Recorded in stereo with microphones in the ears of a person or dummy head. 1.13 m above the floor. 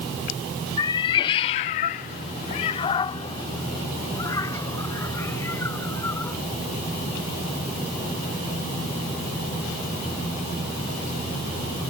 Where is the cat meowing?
25° left (ahead or behind); by 6.4 s 15° left (ahead or behind).